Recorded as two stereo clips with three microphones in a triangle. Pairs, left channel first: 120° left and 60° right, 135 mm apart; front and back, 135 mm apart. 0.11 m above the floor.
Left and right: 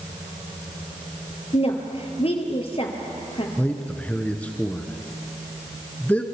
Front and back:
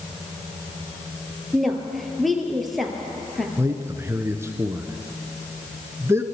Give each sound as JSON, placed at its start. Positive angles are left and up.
{"t": 1.5, "sound": "a woman speaking", "azimuth_deg": 90, "distance_m": 2.5}
{"t": 3.6, "sound": "a man speaking", "azimuth_deg": 175, "distance_m": 1.2}